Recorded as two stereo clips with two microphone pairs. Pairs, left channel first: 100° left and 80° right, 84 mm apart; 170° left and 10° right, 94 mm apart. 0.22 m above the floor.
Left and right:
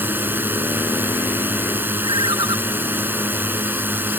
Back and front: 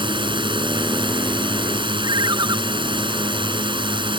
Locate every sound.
0.0 s a drone: 20° right
2.0 s a ringtone: 55° right